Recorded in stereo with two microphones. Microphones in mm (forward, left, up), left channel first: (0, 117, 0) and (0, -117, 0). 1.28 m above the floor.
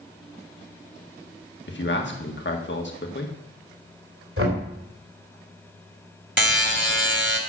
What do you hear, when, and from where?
1.7 s a man speaking: 50° left (ahead or behind), 1.6 m
4.4 s knocking: 60° right (ahead or behind), 3 m
6.4 s a buzzer: 50° right (ahead or behind), 1.7 m